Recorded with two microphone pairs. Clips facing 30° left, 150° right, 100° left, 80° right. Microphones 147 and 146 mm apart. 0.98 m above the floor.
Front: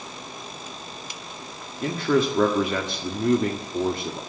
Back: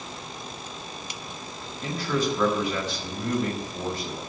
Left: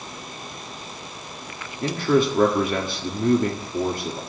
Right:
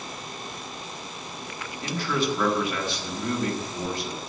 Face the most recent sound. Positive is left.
turn(degrees=65)